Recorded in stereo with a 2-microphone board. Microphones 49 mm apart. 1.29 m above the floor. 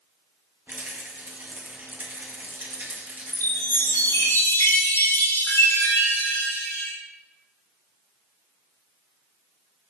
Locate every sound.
0.7 s a rattle: 45° right (ahead or behind), 1.8 m
3.3 s a chime: 60° left (ahead or behind), 4.5 m